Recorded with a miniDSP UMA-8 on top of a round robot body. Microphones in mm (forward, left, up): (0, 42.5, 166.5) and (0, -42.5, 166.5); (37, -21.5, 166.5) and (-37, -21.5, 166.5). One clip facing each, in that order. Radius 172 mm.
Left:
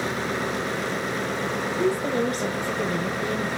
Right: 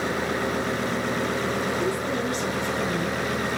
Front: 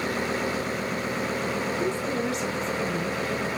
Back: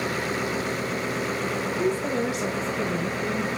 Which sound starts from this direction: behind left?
A woman speaking, at 1.8 s.